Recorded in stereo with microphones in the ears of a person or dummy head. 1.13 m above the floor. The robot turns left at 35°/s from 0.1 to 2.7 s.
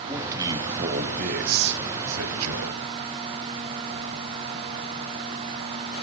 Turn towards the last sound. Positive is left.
turn(degrees=-100)